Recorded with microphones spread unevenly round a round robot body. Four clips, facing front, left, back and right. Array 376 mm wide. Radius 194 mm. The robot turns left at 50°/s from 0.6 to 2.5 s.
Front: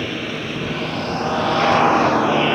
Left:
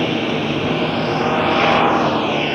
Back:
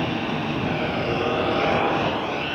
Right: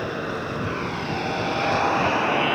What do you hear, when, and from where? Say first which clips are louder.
0.0 s a lawn mower: left 9 dB, back 1 dB; 100° left; by 2.5 s 5° left